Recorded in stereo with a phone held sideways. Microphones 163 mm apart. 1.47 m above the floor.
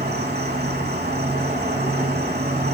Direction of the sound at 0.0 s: 80° right.